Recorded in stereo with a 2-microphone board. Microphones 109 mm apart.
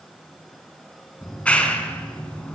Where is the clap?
10° left (ahead or behind), 2.5 m.